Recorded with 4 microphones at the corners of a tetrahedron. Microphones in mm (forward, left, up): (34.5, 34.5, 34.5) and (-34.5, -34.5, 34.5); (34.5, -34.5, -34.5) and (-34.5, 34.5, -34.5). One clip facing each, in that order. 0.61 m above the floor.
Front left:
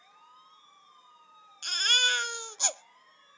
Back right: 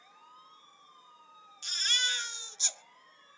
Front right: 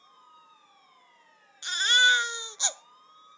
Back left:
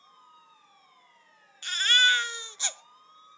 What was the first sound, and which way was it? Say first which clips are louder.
A baby crying: front left 6 dB, front right 2 dB; 25° left.